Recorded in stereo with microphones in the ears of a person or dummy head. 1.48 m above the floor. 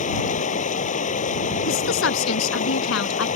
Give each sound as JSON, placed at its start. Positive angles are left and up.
{"t": 0.0, "sound": "running water", "side_deg": 50}
{"t": 1.6, "sound": "a woman speaking", "side_deg": 80}